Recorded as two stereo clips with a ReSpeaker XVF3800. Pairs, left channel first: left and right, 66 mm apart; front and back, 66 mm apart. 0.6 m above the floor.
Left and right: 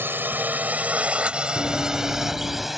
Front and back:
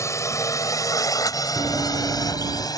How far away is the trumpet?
I don't hear a trumpet.